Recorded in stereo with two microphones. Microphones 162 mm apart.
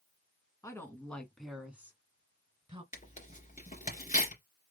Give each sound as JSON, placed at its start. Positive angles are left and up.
{"t": 0.6, "sound": "a woman speaking", "side_deg": 20, "distance_m": 1.5}
{"t": 2.9, "sound": "tearing paper", "side_deg": 50, "distance_m": 2.5}